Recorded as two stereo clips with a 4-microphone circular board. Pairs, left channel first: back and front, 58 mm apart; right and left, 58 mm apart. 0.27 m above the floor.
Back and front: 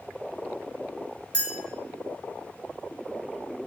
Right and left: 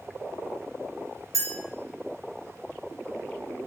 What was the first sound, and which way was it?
A clink, 115° left.